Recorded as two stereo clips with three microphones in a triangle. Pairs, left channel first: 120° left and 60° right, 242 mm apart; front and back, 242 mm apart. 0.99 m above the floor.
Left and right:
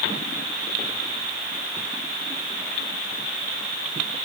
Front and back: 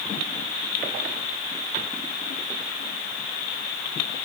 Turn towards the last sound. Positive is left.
No sound to turn to.